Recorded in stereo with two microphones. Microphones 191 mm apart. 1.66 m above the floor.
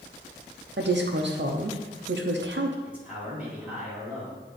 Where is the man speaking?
5° right (ahead or behind), 2.5 m.